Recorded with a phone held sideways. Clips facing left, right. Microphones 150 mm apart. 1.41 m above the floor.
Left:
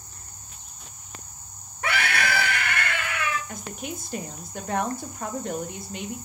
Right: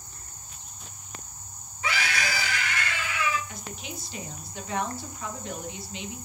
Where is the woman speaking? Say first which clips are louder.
Left 5 dB; 50° left (ahead or behind), 0.7 m.